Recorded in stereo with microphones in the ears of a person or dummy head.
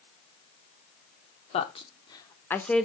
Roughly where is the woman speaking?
Left.